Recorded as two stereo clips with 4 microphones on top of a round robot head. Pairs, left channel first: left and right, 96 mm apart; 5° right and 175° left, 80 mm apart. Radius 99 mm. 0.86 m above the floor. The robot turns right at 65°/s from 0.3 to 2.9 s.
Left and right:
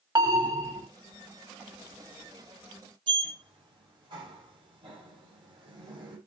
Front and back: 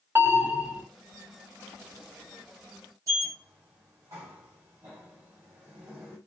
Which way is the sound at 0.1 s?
130° right.